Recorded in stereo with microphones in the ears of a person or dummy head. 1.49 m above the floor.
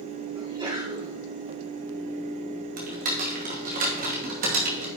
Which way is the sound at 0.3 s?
20° right (ahead or behind).